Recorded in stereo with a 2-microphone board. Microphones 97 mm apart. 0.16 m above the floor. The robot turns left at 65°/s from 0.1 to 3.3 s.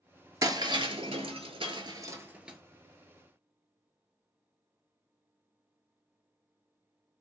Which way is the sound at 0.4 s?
35° right (ahead or behind).